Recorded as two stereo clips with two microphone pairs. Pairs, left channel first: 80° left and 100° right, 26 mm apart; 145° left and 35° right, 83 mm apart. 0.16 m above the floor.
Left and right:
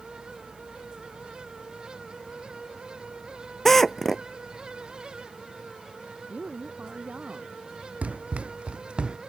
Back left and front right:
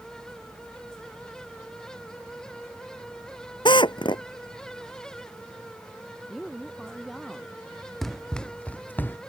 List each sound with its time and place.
3.6 s a drill: 160° left
6.3 s a woman speaking: 125° right
8.0 s running footsteps: 130° right; by 9.2 s 150° right